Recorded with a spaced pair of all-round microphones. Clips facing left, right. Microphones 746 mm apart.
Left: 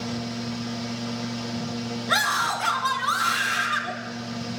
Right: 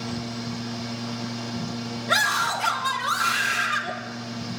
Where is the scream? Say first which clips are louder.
Even; 55° right (ahead or behind), 1.8 m.